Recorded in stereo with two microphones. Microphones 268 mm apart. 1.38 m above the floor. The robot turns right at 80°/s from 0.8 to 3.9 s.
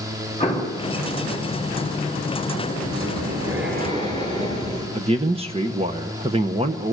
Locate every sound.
0.4 s an explosion: 25° left (ahead or behind), 4 m
2.7 s breathing: 115° right, 6.5 m; by 4.8 s 25° right, 6.5 m
5.0 s a man speaking: 20° right (ahead or behind), 1.1 m